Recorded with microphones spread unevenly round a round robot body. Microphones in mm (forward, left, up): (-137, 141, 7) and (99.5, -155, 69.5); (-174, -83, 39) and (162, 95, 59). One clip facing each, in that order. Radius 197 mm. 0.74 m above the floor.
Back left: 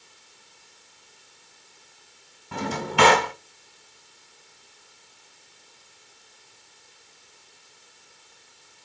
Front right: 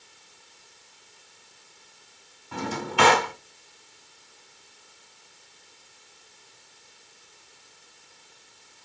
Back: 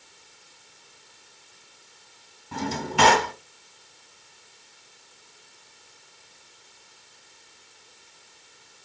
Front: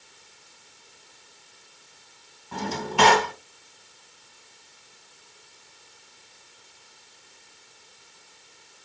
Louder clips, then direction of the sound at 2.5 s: Back left 2 dB, back 1 dB; 150° left.